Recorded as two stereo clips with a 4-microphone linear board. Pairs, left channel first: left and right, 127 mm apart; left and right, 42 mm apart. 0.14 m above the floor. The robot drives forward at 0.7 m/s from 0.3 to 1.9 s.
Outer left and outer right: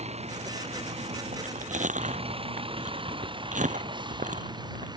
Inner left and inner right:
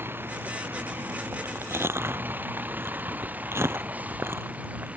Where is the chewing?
80° right.